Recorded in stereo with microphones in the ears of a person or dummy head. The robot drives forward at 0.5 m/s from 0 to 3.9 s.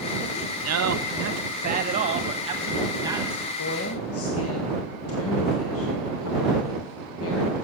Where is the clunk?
No clunk in this recording.